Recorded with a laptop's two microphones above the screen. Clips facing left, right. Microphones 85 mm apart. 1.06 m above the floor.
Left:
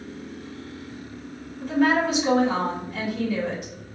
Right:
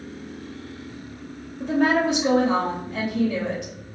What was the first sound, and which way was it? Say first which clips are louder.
A woman speaking: right 1 dB; 75° right (ahead or behind).